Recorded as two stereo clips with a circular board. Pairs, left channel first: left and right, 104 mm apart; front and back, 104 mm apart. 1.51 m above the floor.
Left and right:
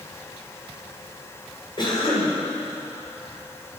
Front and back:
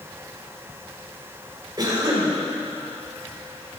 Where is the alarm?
I don't hear an alarm.